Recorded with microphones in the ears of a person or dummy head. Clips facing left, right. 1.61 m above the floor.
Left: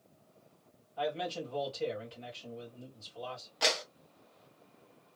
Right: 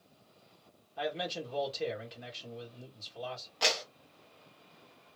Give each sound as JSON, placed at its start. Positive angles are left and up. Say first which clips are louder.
{"t": 1.0, "sound": "a man speaking", "louder": "left 1 dB", "side_deg": -20, "distance_m": 1.4}
{"t": 3.6, "sound": "a clap", "louder": "left 1 dB", "side_deg": 0, "distance_m": 1.1}